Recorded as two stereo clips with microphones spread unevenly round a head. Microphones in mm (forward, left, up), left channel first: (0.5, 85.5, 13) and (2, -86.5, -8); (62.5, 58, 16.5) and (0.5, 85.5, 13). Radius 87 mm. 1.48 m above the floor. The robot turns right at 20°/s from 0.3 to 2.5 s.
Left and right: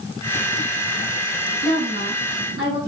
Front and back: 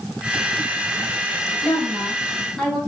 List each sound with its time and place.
1.6 s a woman speaking: 40° left, 3.5 m; by 2.8 s 60° left, 3.5 m